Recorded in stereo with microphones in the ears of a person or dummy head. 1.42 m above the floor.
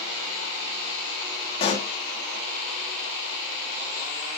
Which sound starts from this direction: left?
A pop, at 1.6 s.